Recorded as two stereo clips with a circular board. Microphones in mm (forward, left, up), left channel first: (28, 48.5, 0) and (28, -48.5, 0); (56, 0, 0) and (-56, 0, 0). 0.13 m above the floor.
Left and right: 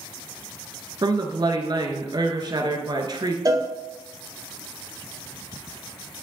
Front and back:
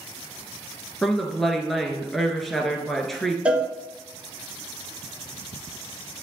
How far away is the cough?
I don't hear a cough.